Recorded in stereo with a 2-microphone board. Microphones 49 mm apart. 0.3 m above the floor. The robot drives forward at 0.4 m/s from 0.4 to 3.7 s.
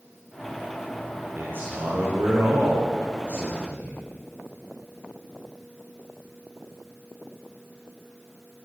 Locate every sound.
1.4 s a man speaking: 45° right (ahead or behind), 8 m; by 4.0 s 40° right (ahead or behind), 8.5 m